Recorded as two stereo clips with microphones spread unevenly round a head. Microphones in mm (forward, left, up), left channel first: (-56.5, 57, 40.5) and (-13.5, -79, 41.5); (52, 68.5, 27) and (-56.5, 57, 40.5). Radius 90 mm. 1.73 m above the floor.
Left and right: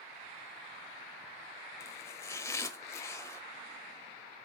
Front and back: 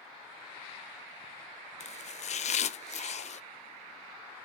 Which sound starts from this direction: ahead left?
Chopping, at 1.8 s.